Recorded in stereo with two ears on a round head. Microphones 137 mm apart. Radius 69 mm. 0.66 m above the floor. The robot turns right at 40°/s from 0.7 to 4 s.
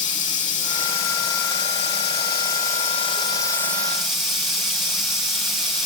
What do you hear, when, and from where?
0.0 s running water: 45° left, 7.5 m; by 5.9 s 175° left, 7.5 m